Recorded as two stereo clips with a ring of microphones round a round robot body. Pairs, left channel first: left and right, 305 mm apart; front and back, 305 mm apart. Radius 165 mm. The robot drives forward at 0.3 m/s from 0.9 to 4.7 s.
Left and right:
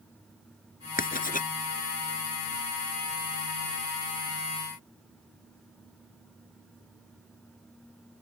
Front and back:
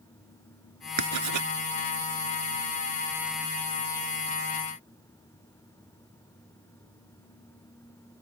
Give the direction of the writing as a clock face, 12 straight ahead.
7 o'clock.